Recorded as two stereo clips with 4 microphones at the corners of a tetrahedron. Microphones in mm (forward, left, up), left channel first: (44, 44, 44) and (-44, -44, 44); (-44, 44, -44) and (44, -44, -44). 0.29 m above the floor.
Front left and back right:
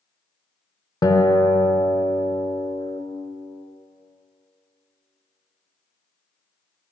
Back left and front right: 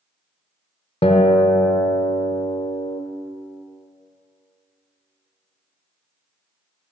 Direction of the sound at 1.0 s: 105° left.